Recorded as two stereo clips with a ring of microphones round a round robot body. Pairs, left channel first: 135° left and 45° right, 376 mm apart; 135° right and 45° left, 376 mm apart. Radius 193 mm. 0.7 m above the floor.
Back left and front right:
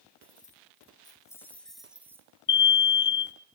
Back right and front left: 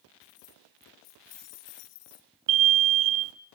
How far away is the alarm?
About 0.8 m.